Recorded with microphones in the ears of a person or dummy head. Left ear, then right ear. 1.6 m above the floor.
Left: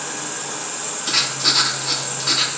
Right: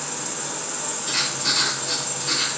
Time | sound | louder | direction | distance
0.0 | an insect | left 2 dB | 15° left (ahead or behind) | 1.4 m
1.1 | writing | left 5 dB | 40° left (ahead or behind) | 0.7 m